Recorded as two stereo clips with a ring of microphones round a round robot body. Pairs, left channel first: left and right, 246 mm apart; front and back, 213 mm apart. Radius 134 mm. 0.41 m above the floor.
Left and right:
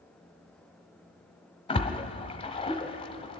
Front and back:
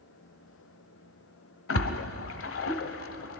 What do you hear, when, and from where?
1.7 s a splash: 20° left, 1.0 m